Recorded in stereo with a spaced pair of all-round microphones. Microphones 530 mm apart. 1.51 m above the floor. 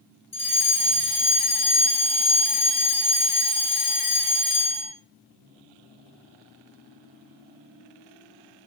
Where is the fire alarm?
65° left (ahead or behind), 6 m.